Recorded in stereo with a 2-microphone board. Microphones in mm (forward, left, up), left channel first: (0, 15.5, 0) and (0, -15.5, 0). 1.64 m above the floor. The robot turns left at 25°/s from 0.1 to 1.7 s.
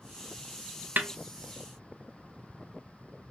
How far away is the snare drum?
About 0.6 m.